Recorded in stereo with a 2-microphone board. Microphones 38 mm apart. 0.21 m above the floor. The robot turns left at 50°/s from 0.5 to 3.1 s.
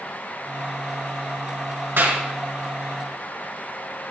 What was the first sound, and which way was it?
A clap, 65° right (ahead or behind).